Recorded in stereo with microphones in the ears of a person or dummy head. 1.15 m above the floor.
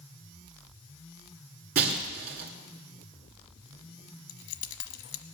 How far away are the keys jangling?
About 0.9 m.